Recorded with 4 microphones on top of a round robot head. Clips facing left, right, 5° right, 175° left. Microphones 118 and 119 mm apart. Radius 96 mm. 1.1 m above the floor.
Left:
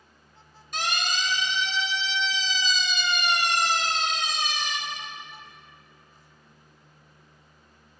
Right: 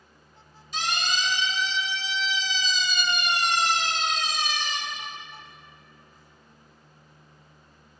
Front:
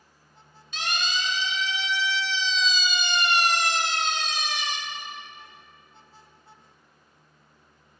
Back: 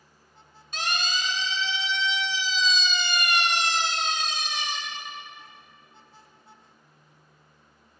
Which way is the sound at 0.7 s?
125° left.